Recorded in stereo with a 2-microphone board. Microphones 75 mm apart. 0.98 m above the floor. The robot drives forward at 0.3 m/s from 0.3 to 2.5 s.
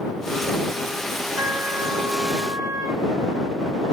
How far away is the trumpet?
About 1.6 m.